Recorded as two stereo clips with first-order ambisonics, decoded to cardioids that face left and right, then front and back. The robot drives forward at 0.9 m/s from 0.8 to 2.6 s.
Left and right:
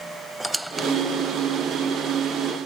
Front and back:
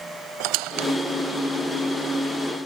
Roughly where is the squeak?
Behind.